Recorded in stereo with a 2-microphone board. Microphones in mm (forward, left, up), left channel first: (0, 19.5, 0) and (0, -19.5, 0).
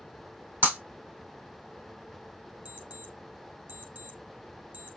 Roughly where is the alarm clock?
Right.